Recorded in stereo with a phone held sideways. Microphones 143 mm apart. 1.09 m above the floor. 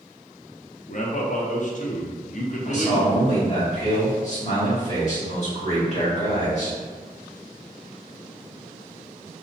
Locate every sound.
0.9 s a man speaking: 55° left (ahead or behind), 0.5 m
2.6 s a man speaking: 50° left (ahead or behind), 1.4 m